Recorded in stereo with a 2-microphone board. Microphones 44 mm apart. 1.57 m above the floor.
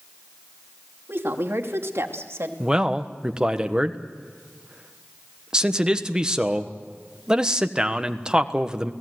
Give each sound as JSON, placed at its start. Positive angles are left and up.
{"t": 1.1, "sound": "a woman speaking", "side_deg": -60, "distance_m": 2.5}
{"t": 2.6, "sound": "a man speaking", "side_deg": -20, "distance_m": 1.3}